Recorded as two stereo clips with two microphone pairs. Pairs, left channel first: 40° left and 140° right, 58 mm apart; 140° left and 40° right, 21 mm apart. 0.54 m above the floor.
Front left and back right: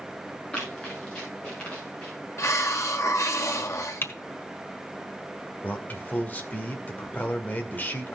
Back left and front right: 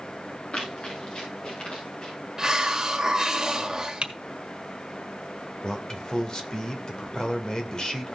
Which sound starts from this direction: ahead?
Typing on a keyboard, at 4.0 s.